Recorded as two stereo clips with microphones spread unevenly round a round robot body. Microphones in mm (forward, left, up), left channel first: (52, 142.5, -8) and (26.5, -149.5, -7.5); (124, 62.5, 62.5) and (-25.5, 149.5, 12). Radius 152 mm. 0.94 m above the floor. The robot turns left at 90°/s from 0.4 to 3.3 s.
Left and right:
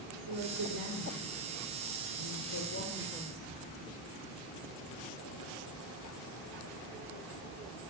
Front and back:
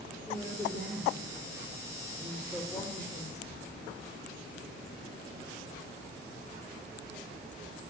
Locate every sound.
0.3 s a woman speaking: 115° right, 3.5 m; by 3.5 s 15° right, 3.5 m